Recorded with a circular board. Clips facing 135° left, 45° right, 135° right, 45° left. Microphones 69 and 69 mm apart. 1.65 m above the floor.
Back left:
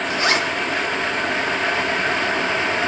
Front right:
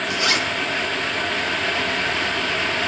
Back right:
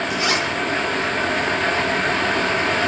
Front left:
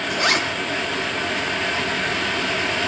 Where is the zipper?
80° left, 3.5 m.